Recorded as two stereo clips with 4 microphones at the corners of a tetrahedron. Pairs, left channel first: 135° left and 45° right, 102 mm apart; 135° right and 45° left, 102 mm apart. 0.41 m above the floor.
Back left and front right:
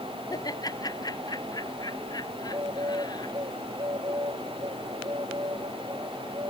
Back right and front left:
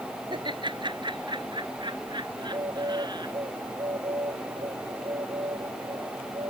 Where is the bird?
Straight ahead.